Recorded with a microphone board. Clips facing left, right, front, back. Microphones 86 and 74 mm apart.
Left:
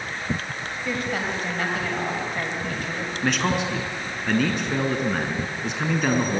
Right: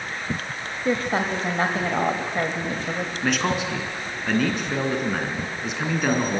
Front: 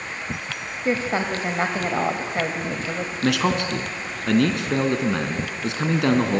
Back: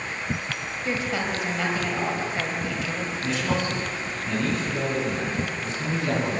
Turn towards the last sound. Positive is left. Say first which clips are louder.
# left 1 dB, front 5 dB
turn(degrees=0)